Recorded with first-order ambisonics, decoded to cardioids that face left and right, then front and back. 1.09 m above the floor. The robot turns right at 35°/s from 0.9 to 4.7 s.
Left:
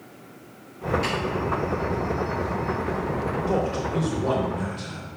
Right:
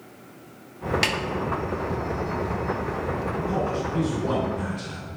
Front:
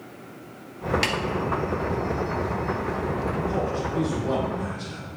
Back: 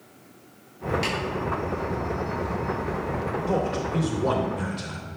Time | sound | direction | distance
1.0 | a snare drum | 60° right | 0.9 m
3.5 | a man speaking | 130° left | 2.5 m